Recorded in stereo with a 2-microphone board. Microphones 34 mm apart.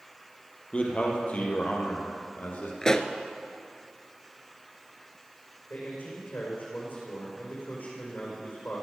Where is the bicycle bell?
I don't hear a bicycle bell.